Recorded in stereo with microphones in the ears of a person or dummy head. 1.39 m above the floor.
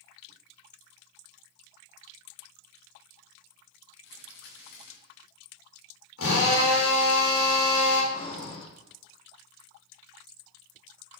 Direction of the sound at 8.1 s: 40° left (ahead or behind).